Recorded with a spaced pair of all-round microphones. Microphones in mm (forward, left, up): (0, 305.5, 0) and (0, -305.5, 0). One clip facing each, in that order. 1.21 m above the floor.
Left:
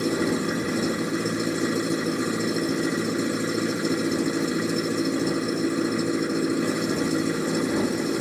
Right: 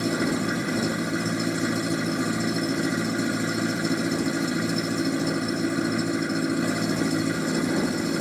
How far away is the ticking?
No ticking in this recording.